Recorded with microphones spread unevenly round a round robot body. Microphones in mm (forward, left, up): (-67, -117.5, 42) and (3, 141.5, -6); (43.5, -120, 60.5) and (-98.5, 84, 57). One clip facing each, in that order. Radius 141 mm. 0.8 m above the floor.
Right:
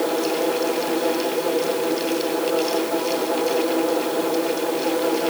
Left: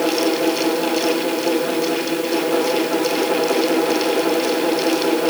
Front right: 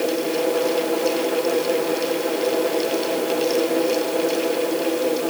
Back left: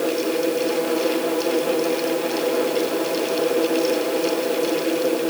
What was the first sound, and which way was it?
Only background noise.